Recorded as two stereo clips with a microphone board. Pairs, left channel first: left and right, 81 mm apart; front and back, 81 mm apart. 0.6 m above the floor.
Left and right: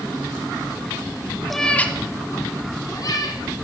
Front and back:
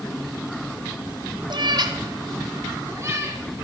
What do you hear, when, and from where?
1.5 s a cat meowing: straight behind, 0.7 m; by 3.4 s 125° left, 1.8 m